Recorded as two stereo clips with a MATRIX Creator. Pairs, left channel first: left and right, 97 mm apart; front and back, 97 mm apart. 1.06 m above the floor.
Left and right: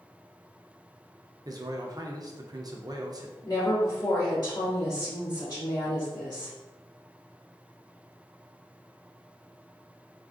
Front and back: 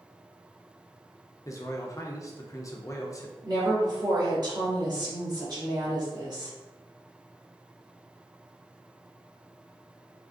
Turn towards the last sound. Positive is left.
turn(degrees=135)